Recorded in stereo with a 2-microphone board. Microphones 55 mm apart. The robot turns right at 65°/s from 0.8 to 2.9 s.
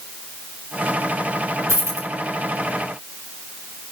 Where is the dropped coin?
85° right, 2 m; by 2.1 s 60° right (ahead or behind), 2 m.